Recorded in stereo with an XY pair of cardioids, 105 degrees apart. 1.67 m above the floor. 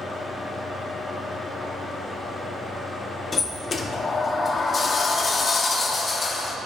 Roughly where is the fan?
Ahead left.